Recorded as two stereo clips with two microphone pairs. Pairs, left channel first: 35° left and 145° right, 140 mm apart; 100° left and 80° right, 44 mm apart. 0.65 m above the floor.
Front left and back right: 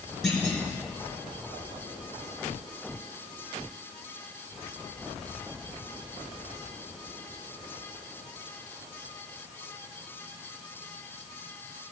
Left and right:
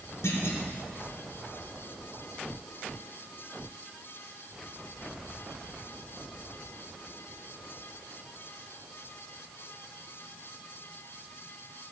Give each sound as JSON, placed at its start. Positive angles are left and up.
{"t": 0.2, "sound": "a clunk", "azimuth_deg": 120, "distance_m": 4.5}